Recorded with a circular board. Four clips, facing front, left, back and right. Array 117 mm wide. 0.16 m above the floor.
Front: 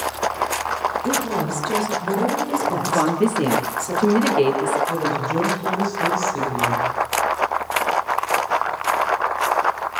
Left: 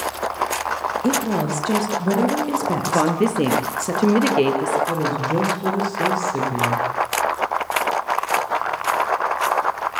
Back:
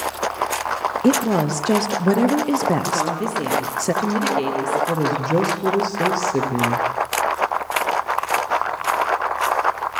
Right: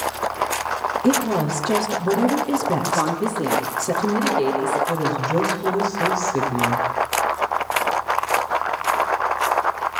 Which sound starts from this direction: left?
A woman speaking, at 2.9 s.